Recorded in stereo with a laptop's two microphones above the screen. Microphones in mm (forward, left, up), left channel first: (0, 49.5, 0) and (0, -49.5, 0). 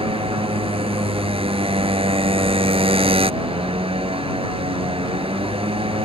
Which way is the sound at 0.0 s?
75° right (ahead or behind).